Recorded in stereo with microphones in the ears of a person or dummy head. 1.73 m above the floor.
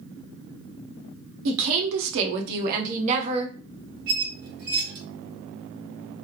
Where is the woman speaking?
65° right (ahead or behind), 0.8 m; by 3.5 s 35° right (ahead or behind), 1.2 m.